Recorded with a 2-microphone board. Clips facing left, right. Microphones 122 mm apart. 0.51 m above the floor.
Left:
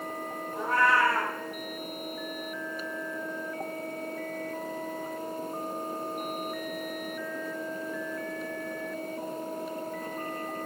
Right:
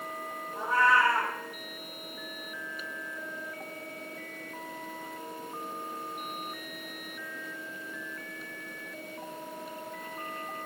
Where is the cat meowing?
65° left (ahead or behind), 5 m.